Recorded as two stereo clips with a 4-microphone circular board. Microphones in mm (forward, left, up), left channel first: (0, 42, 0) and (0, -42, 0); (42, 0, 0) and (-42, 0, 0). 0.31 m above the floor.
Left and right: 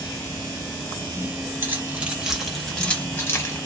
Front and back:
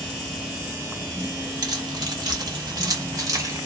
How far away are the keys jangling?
About 1.3 m.